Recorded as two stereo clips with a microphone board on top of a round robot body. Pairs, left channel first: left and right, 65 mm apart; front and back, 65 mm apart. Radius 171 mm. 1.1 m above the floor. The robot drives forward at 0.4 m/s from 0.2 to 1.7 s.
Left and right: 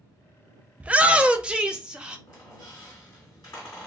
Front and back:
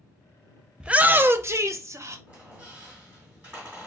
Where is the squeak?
115° left, 1.4 m.